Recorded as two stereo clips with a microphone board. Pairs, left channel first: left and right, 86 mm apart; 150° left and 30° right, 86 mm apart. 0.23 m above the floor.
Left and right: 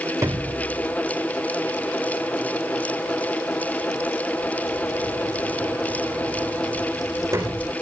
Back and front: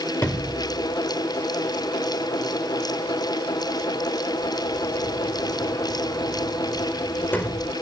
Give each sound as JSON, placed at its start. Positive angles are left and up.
{"t": 0.2, "sound": "a sliding door", "azimuth_deg": -145, "distance_m": 3.0}